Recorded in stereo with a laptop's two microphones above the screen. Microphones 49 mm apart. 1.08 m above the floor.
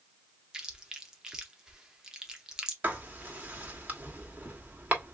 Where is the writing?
40° right (ahead or behind), 1.1 m.